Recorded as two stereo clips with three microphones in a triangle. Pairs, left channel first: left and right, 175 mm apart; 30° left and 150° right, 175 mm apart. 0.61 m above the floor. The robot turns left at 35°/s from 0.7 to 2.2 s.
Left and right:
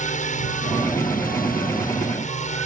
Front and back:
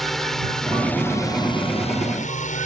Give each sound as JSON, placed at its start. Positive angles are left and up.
{"t": 0.0, "sound": "a drone", "azimuth_deg": 120}